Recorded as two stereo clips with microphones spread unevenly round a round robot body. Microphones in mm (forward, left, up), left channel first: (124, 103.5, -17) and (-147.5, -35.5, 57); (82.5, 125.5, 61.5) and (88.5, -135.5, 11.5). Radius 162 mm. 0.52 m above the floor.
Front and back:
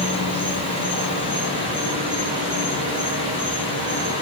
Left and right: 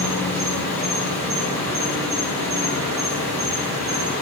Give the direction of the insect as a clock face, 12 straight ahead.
3 o'clock.